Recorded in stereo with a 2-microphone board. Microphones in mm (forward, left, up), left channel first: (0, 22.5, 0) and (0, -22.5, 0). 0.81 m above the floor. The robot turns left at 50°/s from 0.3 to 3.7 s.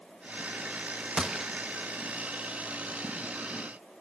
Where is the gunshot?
25° right (ahead or behind), 0.8 m; by 1.5 s 10° right (ahead or behind), 0.8 m.